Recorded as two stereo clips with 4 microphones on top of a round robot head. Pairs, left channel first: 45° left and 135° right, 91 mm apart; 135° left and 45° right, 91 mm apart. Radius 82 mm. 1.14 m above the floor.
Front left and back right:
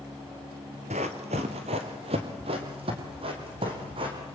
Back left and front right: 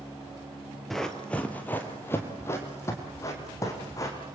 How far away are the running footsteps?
About 1.7 m.